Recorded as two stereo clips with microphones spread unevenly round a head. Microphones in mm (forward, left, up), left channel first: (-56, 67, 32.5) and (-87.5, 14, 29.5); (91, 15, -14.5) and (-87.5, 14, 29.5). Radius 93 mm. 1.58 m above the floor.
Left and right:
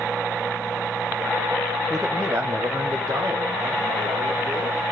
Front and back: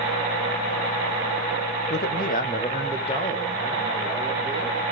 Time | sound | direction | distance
1.9 | a man speaking | 25° right | 1.1 m